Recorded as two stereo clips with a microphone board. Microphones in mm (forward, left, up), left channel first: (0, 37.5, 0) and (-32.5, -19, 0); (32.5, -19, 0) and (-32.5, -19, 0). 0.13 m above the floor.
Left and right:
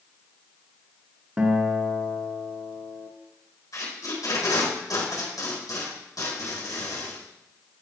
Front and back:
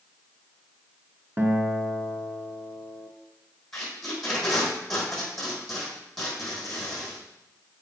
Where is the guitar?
165° right, 1.0 m.